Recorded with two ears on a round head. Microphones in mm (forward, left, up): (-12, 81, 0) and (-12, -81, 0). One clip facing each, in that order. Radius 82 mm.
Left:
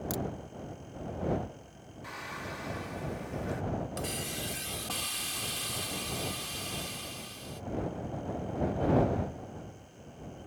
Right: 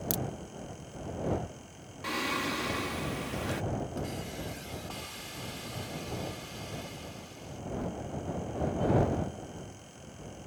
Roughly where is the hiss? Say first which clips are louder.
Even; left.